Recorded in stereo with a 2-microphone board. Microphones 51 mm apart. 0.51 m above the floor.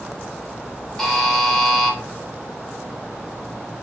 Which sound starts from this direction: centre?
A buzzer, at 1.0 s.